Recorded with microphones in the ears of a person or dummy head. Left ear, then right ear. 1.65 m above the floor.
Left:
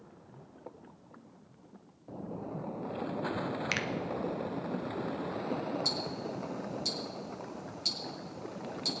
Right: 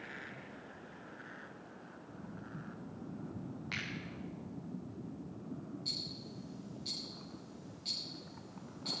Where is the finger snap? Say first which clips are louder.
Left 6 dB; 70° left (ahead or behind), 0.9 m.